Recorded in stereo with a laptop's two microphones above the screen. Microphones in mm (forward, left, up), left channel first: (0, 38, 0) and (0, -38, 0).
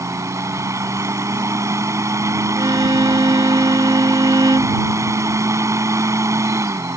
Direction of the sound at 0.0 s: 40° right (ahead or behind).